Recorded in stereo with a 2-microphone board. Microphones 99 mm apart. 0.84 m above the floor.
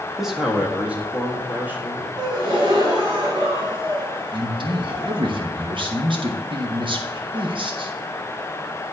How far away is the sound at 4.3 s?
About 1.4 m.